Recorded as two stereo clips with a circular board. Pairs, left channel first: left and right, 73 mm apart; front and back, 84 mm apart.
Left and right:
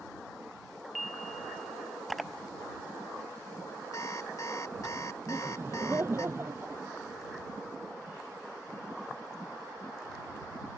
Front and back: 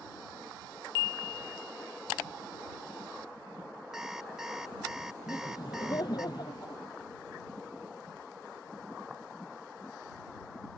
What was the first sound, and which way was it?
An alarm clock, 100° left.